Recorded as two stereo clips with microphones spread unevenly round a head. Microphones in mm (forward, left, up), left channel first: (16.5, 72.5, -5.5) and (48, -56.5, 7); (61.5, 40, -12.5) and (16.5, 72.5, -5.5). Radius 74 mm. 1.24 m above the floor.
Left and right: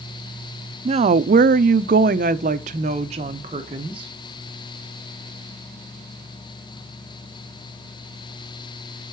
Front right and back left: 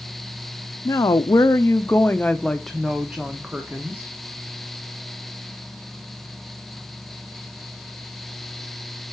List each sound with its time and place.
0.8 s a woman speaking: 35° right, 0.6 m; by 4.1 s 135° right, 1.5 m